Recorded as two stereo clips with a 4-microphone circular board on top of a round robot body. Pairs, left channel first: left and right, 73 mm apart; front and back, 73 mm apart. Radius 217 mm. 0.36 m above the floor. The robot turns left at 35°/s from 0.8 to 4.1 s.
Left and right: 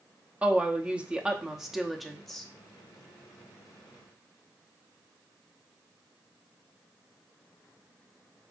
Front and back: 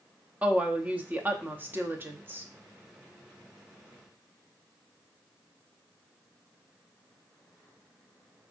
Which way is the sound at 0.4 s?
135° right.